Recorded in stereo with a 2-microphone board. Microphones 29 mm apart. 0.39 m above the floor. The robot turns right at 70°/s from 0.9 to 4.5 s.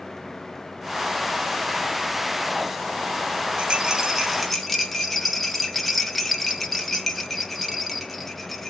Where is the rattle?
55° right, 0.9 m; by 8.7 s 10° left, 0.9 m.